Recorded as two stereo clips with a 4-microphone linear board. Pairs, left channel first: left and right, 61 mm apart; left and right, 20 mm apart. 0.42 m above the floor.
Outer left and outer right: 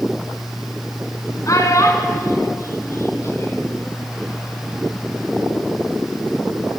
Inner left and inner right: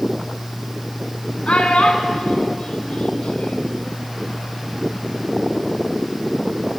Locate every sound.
1.5 s a child speaking: 65° left (ahead or behind), 3.5 m; by 3.8 s 40° left (ahead or behind), 3.5 m